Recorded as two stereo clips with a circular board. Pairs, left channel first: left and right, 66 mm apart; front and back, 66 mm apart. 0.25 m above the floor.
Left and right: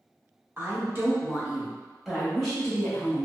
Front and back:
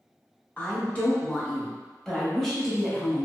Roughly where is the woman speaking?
Ahead right.